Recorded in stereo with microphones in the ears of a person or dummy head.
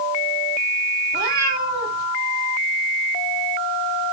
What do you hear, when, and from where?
1.1 s a cat meowing: 20° right (ahead or behind), 1.4 m